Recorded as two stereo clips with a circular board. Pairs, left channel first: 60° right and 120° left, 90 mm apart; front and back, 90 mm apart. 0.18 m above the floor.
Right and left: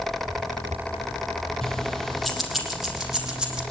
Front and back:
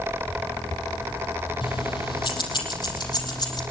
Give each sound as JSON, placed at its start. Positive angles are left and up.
{"t": 1.6, "sound": "keys jangling", "azimuth_deg": 25, "distance_m": 4.0}